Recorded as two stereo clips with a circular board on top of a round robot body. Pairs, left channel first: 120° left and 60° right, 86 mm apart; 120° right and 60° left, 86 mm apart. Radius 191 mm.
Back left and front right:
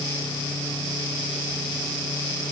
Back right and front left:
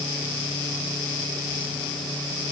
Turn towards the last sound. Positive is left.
No sound to turn to.